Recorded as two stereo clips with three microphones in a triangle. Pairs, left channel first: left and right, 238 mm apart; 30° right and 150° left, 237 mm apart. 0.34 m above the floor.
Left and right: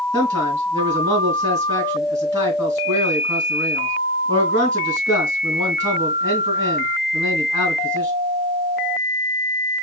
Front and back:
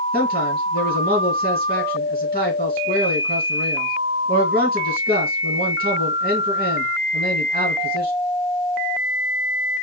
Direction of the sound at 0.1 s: 165° right.